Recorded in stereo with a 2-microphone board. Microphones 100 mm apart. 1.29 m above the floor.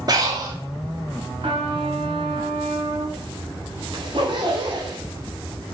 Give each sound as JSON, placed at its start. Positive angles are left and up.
{"t": 0.1, "sound": "breathing", "side_deg": -40, "distance_m": 1.6}
{"t": 1.4, "sound": "a trumpet", "side_deg": -75, "distance_m": 4.5}
{"t": 3.9, "sound": "a zipper", "side_deg": -55, "distance_m": 3.0}